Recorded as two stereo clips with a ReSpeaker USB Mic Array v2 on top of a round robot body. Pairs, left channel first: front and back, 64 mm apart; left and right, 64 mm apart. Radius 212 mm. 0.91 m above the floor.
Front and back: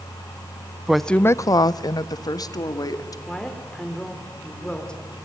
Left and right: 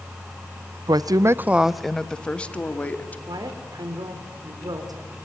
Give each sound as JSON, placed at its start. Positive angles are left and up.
{"t": 0.9, "sound": "a woman speaking", "azimuth_deg": -95, "distance_m": 0.8}
{"t": 3.3, "sound": "a woman speaking", "azimuth_deg": -75, "distance_m": 4.0}